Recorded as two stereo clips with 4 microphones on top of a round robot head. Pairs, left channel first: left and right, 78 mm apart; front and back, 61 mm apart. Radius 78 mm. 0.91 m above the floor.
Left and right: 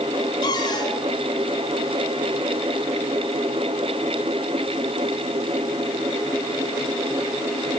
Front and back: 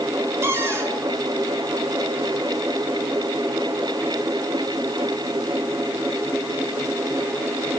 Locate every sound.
0.4 s a cupboard door: 135° left, 7 m